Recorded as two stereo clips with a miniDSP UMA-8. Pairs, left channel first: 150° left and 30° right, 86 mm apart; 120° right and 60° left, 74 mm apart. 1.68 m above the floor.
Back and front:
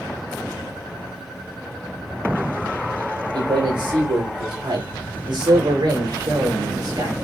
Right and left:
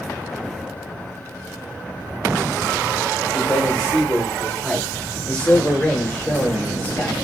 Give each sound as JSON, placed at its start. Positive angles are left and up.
{"t": 3.3, "sound": "a man speaking", "azimuth_deg": -35, "distance_m": 5.5}